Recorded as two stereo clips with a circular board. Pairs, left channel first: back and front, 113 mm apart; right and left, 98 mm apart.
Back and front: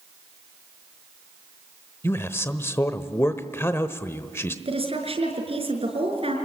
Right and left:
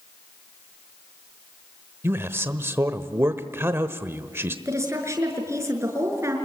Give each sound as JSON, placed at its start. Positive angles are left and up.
{"t": 2.0, "sound": "a man speaking", "azimuth_deg": 130, "distance_m": 1.0}
{"t": 4.7, "sound": "a woman speaking", "azimuth_deg": 30, "distance_m": 5.5}